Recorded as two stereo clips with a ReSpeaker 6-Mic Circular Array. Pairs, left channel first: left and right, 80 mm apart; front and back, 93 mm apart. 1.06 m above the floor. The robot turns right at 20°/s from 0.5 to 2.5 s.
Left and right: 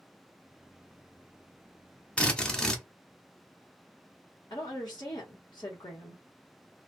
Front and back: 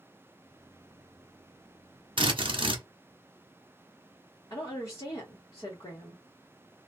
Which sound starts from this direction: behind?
A drill, at 2.2 s.